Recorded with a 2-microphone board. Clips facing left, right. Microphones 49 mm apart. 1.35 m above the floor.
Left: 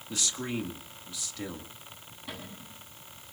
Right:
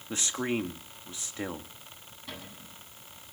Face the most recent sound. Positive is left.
turn(degrees=10)  # may be behind; listen again after turning